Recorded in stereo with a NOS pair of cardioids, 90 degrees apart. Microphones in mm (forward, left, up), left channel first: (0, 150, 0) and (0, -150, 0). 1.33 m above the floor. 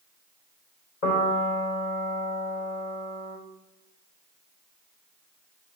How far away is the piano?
About 2.5 m.